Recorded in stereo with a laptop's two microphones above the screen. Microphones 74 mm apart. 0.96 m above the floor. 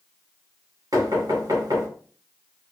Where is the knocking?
55° right (ahead or behind), 1.6 m.